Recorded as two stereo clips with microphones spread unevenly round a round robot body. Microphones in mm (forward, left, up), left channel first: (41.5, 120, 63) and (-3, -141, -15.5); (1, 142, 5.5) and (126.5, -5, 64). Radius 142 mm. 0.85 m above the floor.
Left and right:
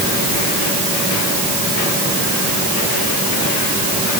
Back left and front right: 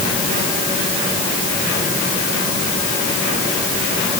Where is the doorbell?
I don't hear a doorbell.